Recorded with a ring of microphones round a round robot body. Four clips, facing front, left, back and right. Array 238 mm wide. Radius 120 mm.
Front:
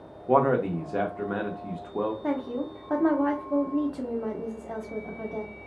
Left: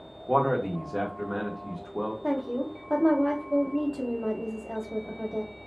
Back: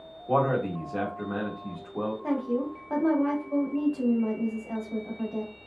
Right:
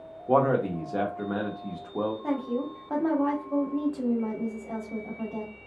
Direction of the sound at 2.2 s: 15° left.